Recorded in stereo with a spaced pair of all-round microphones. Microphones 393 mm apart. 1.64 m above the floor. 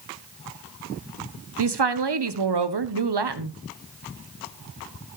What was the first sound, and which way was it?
A woman speaking, 85° right.